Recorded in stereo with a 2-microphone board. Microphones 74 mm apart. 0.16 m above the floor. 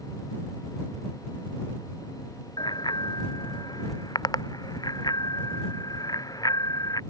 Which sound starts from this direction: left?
A bicycle bell, at 2.6 s.